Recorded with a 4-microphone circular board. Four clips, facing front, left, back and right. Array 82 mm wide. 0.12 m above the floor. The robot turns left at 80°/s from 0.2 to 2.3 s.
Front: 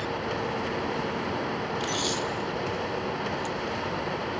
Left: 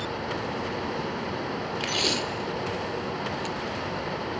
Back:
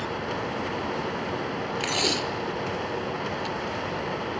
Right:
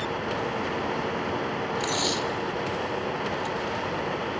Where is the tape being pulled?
160° left, 1.2 m; by 3.6 s 120° left, 1.2 m.